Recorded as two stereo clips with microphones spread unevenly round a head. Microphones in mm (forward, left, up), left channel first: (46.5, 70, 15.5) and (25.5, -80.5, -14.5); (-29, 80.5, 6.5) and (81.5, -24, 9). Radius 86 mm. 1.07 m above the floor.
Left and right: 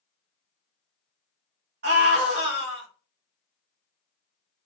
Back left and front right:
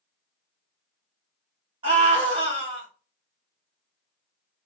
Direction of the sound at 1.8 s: 105° right.